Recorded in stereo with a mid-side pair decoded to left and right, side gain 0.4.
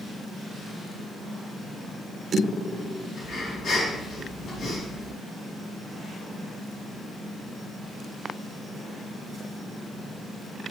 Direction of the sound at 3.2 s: 65° left.